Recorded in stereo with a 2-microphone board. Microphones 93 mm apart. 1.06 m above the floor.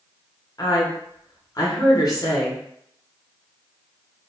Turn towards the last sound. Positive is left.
turn(degrees=40)  # may be behind; listen again after turning